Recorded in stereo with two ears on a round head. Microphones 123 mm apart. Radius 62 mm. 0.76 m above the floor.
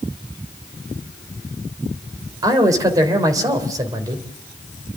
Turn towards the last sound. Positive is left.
turn(degrees=-25)  # may be behind; listen again after turning